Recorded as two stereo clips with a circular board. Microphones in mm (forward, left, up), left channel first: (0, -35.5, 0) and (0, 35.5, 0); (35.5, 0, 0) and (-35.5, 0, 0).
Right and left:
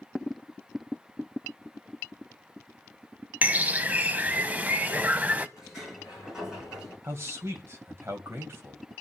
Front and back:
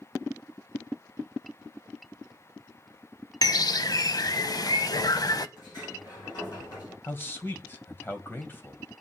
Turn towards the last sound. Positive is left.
turn(degrees=50)